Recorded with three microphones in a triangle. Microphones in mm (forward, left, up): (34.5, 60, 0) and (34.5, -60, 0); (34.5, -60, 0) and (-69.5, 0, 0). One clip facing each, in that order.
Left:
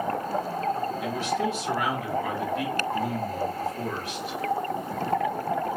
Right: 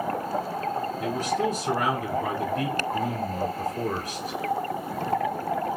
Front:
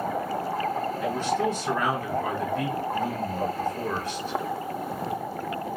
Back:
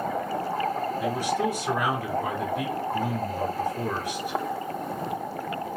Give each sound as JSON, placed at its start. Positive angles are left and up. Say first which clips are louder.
{"t": 1.0, "sound": "a man speaking", "louder": "right 1 dB, front 1 dB", "azimuth_deg": -125, "distance_m": 1.7}